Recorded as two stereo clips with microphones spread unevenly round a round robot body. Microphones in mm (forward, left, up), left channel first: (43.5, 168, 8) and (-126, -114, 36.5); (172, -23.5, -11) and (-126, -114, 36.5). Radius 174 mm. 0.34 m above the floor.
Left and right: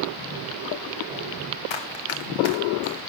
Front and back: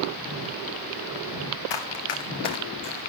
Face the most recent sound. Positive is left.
turn(degrees=25)